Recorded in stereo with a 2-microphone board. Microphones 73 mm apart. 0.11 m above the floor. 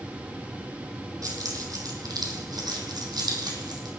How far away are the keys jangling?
About 2.5 m.